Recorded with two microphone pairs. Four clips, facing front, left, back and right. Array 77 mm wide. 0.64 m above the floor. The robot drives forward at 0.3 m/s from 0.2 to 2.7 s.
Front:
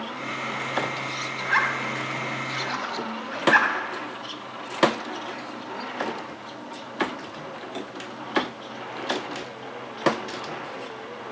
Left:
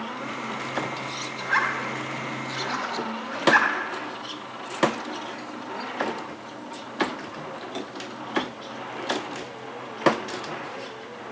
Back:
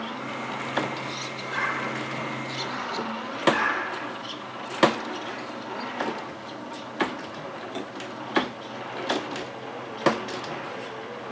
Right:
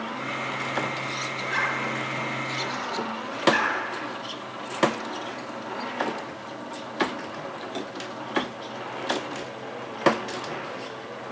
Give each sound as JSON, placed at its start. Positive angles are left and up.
{"t": 1.4, "sound": "a zipper", "azimuth_deg": 35, "distance_m": 3.0}